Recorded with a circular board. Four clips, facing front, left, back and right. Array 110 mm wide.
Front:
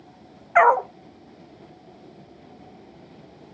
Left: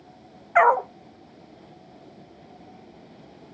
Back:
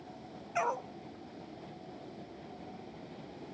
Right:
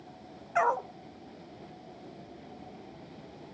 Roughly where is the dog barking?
Ahead left.